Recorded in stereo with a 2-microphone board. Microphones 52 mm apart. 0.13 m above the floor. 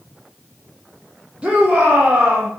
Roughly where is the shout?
Right.